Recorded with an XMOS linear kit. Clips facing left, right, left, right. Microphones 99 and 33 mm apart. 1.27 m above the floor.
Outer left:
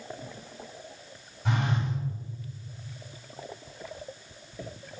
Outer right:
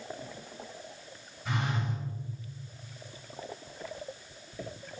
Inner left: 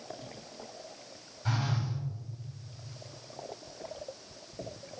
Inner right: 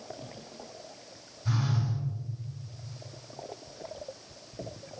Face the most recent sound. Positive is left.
turn(degrees=70)  # may be behind; listen again after turning